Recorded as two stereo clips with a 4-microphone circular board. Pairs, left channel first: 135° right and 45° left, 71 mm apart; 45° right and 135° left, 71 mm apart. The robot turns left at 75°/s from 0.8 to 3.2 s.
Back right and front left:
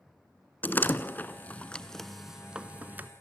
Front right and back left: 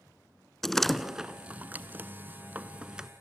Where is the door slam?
125° right, 0.9 m; by 3.1 s 65° left, 0.9 m.